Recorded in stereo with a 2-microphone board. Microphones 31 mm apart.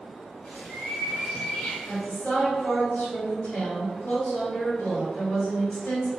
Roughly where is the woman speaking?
Left.